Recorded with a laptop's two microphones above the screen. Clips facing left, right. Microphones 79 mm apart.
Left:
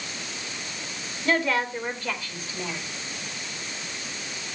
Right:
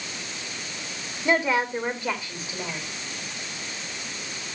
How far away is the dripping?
I don't hear dripping.